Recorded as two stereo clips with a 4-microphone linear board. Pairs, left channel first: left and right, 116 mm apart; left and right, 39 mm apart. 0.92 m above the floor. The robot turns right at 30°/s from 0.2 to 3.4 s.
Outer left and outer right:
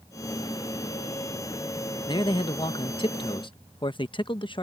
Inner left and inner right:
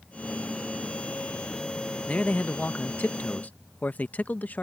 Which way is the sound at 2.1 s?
60° left.